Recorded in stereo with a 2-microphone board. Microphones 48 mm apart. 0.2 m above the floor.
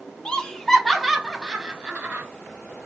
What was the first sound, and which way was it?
Laughter, 20° left (ahead or behind).